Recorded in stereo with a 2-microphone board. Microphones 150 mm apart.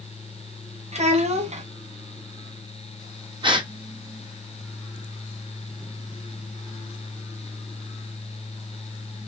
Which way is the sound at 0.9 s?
45° right (ahead or behind).